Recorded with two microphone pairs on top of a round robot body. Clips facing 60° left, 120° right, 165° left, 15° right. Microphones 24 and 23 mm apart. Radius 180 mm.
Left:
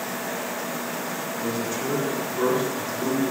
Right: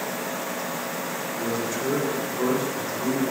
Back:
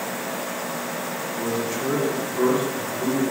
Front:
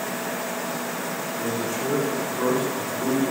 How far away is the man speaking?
About 0.9 m.